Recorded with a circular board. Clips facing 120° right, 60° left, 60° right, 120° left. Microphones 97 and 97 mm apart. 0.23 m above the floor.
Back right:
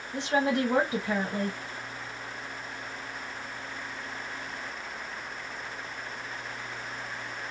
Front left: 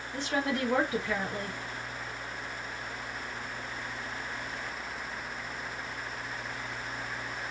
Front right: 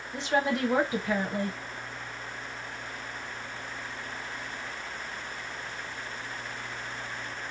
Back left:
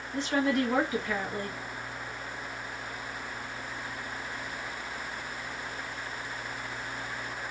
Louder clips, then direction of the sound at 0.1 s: Back right 5 dB, even; 85° right.